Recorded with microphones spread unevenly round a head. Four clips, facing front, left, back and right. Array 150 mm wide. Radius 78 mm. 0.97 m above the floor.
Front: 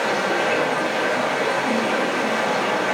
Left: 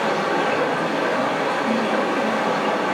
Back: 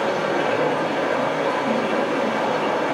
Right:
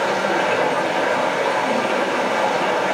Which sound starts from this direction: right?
Running water, at 0.0 s.